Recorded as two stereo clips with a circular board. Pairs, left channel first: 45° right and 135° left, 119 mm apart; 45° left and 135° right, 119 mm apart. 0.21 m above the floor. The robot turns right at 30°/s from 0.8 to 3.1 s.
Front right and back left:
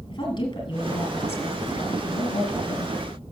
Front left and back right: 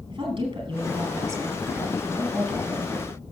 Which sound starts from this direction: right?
A woman speaking, at 0.1 s.